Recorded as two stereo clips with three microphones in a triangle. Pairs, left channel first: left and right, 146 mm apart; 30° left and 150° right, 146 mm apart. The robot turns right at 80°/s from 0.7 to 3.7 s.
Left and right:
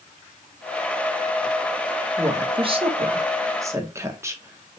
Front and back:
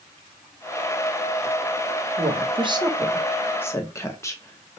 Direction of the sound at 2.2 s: 155° right.